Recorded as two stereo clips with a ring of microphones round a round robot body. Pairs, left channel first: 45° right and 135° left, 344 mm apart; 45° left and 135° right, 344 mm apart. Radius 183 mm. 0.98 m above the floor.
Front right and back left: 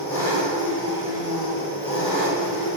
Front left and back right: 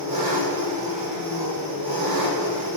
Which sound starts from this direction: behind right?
An engine running, at 0.0 s.